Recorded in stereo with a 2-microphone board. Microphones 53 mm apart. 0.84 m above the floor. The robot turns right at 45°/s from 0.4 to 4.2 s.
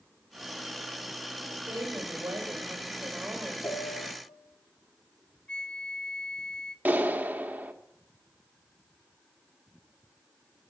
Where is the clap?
30° right (ahead or behind), 1.1 m.